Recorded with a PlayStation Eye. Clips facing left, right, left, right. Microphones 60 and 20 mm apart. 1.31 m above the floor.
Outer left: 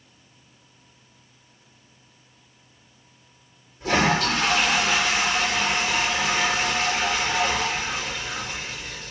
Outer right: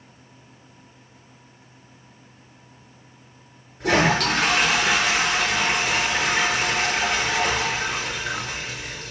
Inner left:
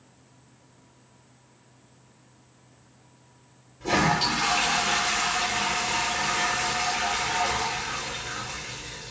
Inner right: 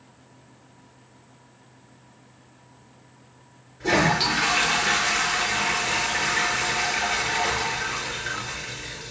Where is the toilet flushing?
70° right (ahead or behind), 5.5 m.